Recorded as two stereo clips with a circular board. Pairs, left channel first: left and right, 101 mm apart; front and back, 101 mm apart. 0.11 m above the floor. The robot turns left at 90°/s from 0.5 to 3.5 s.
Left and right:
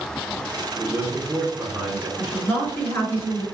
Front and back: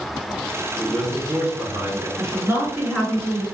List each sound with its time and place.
0.8 s a man speaking: 65° right, 1.8 m; by 2.1 s 175° left, 1.8 m
2.2 s a woman speaking: 165° left, 1.8 m; by 3.4 s 55° left, 1.8 m